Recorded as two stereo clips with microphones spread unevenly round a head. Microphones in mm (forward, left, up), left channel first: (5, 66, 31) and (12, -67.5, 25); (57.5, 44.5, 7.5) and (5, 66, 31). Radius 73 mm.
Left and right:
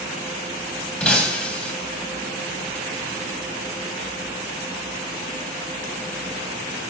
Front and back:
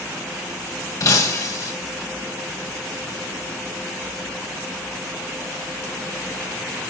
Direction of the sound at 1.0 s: 10° left.